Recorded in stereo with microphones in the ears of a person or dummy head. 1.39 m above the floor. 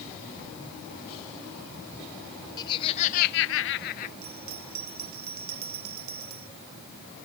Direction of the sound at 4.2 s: 80° right.